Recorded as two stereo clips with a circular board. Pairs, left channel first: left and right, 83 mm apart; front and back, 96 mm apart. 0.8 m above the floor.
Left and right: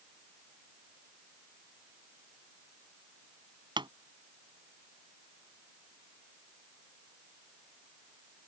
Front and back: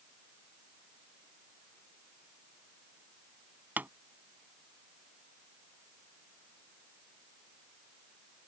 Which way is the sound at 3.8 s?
110° right.